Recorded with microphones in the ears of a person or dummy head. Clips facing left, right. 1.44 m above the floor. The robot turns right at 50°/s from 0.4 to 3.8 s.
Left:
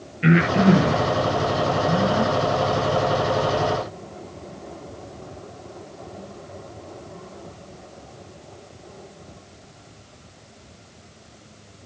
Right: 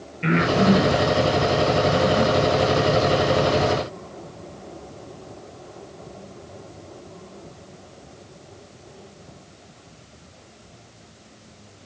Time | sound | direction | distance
0.2 | breathing | 10° left (ahead or behind) | 8 m